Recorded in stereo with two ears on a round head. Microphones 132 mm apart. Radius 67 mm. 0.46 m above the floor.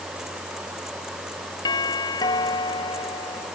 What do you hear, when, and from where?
1.6 s a doorbell: 25° left (ahead or behind)